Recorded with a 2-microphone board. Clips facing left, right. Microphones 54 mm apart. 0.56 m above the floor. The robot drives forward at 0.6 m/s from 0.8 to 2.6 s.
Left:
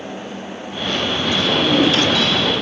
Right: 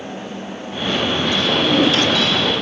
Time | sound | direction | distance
1.5 | a drawer | 10° left (ahead or behind) | 9.5 m